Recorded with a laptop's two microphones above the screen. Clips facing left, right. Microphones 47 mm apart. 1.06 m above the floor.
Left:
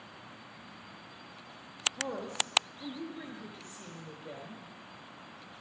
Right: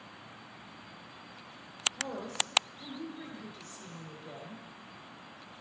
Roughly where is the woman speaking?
Left.